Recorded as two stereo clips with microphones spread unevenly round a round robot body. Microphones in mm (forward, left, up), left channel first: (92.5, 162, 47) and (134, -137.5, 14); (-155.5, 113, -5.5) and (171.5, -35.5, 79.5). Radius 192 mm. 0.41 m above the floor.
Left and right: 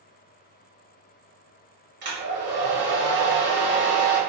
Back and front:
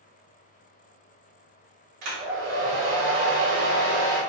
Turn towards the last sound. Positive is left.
turn(degrees=-30)